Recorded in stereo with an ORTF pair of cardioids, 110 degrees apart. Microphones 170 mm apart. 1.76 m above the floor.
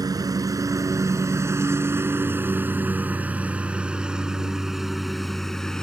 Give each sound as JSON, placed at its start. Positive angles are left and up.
{"t": 0.0, "sound": "a lawn mower", "azimuth_deg": -20}